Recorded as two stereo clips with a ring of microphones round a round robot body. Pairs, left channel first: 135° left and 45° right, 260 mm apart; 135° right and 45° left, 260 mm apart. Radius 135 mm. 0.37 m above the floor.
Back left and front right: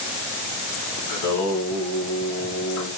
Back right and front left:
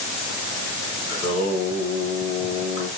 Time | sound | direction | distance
1.1 | singing | 155° left | 3 m